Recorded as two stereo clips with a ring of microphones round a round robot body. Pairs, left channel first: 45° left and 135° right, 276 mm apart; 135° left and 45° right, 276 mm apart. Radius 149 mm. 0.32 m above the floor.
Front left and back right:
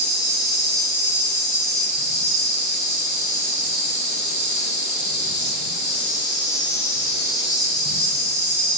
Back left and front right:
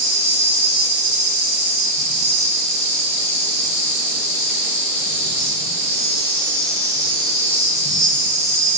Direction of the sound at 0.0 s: 10° left.